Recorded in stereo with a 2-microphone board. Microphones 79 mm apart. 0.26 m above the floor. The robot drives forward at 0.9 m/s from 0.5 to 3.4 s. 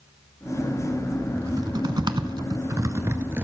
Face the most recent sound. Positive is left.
turn(degrees=-30)  # may be behind; listen again after turning